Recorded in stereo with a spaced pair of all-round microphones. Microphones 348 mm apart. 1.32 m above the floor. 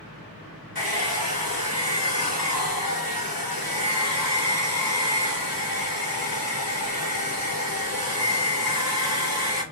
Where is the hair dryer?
85° left, 1.3 m.